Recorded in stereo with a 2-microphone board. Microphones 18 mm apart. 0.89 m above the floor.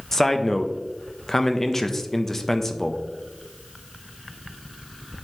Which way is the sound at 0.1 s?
20° left (ahead or behind).